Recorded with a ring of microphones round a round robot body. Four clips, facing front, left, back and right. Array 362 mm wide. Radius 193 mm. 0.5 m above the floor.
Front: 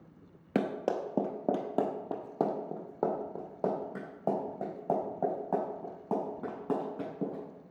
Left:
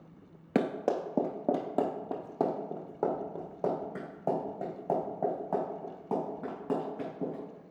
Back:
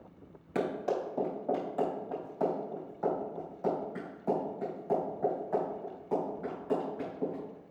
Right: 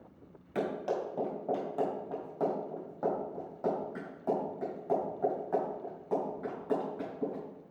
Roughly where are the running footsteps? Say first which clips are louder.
Left 4 dB, front 1 dB; ahead left.